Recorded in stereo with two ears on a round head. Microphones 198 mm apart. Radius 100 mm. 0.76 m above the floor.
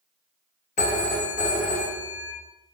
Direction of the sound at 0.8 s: 35° left (ahead or behind).